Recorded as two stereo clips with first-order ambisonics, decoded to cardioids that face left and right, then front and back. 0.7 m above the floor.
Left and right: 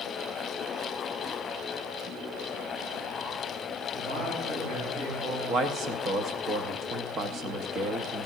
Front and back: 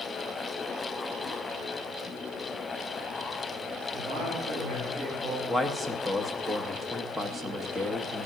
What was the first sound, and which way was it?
A man speaking, 120° right.